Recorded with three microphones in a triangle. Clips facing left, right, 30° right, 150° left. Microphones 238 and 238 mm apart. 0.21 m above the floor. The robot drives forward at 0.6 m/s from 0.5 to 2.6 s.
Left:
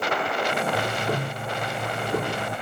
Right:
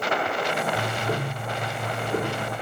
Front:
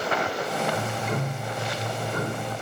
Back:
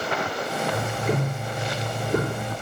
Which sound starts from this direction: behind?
Ticking, at 0.7 s.